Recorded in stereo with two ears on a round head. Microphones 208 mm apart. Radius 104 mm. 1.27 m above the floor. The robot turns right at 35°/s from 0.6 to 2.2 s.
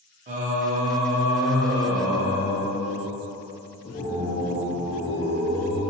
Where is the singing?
30° right, 0.5 m; by 5.8 s 25° left, 0.5 m.